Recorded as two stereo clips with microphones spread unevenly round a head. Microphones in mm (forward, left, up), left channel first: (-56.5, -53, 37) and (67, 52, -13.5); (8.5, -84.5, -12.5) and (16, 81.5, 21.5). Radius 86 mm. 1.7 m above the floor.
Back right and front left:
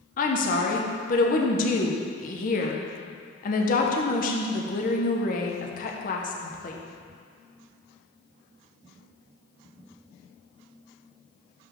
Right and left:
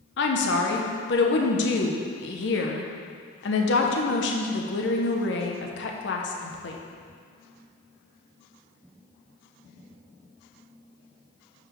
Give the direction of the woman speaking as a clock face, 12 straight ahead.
4 o'clock.